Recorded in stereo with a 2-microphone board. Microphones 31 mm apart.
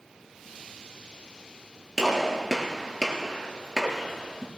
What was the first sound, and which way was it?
A gunshot, 5° left (ahead or behind).